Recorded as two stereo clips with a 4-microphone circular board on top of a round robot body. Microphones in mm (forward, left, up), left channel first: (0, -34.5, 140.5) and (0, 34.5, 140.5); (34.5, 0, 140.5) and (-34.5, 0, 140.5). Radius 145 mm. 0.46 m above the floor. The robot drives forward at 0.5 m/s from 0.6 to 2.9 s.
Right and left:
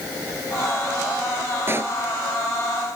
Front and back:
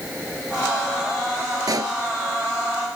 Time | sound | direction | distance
1.7 | a pop | 145° left | ?